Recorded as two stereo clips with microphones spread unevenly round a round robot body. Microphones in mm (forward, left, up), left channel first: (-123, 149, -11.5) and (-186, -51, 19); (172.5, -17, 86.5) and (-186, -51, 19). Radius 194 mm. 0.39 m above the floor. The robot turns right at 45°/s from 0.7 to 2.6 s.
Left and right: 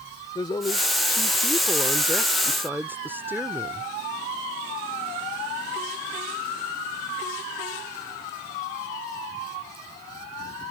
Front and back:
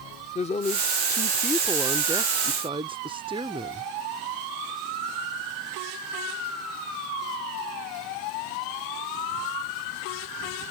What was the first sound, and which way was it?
A woman speaking, 80° left.